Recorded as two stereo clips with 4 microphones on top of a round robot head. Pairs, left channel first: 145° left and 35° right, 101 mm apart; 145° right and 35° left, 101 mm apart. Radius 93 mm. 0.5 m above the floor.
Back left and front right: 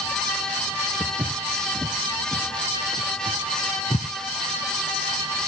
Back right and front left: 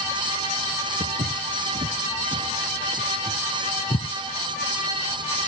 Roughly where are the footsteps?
Ahead left.